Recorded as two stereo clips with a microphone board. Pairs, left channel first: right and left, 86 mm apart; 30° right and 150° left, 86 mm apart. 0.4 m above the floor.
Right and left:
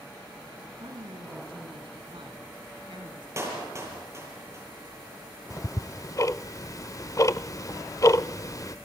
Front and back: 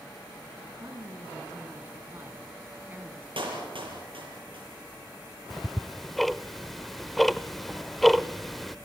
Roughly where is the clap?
Behind left.